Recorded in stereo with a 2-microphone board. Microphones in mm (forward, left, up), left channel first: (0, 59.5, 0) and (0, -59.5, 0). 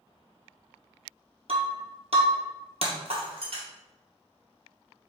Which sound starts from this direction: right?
Breaking glass, at 1.5 s.